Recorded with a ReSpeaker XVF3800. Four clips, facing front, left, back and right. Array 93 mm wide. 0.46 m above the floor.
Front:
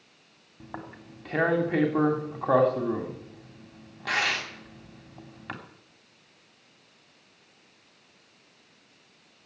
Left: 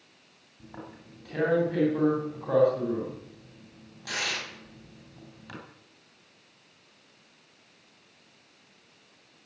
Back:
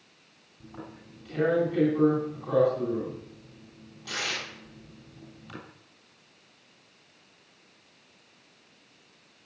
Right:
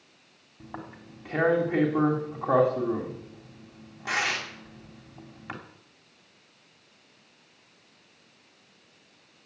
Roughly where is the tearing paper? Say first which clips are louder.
Right 3 dB, front 3 dB; ahead right.